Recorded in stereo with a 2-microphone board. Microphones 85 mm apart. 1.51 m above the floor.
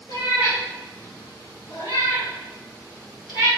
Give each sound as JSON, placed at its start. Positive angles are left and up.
{"t": 0.1, "sound": "a cat meowing", "side_deg": 75, "distance_m": 4.5}